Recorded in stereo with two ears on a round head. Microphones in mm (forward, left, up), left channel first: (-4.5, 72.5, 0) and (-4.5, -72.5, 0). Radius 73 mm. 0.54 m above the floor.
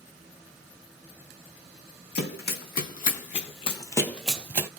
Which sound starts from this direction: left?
Running footsteps, at 2.1 s.